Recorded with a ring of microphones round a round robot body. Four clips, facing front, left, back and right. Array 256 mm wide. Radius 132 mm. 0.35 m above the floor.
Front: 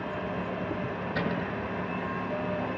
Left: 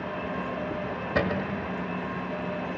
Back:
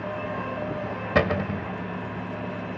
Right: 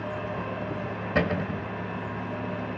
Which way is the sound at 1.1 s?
175° right.